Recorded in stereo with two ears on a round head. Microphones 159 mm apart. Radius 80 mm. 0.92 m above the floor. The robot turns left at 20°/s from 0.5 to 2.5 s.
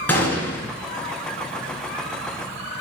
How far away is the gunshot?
About 1.9 m.